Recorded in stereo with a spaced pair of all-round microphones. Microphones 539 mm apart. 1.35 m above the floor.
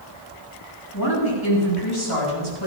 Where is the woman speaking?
40° left (ahead or behind), 8 m; by 2.7 s 50° left (ahead or behind), 7.5 m.